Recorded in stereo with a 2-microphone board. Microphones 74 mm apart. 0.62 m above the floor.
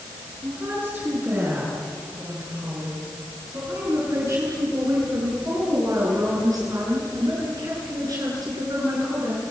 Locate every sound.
0.4 s a woman speaking: 30° right (ahead or behind), 9 m; by 9.4 s 55° right (ahead or behind), 10.5 m